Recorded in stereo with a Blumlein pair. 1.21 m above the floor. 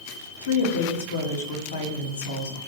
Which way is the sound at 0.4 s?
60° left.